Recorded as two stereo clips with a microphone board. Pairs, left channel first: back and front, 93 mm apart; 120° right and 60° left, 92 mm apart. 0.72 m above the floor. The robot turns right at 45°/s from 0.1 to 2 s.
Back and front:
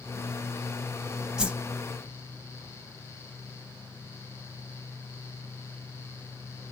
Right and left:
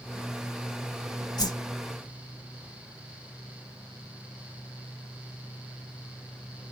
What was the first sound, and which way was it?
A whoosh, 80° right.